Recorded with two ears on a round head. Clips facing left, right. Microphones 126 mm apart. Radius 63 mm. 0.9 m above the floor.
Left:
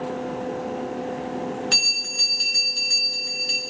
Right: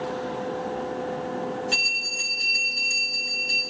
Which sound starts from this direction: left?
A bell, at 1.7 s.